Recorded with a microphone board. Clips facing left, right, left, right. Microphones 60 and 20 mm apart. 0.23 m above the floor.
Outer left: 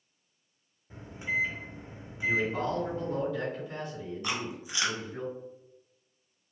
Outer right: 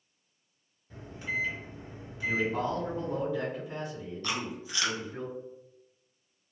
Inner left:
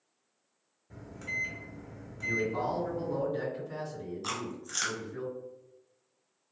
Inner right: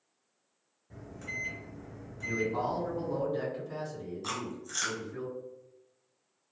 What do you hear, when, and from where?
0.9 s a microwave: 20° left (ahead or behind), 0.8 m
2.2 s a man speaking: 15° right (ahead or behind), 1.7 m
4.2 s chewing: 15° left (ahead or behind), 0.7 m